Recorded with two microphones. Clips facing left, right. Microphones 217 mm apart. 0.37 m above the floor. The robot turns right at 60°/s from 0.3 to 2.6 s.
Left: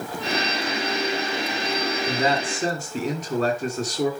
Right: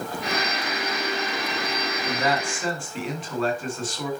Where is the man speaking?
10° left, 2.5 m; by 4.1 s 45° left, 2.5 m.